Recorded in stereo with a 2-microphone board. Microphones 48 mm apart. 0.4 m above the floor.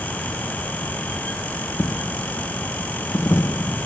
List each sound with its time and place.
1.8 s a dropped coin: 80° left